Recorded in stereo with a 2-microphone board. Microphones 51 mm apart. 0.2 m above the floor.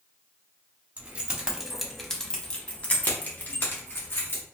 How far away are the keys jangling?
About 0.8 m.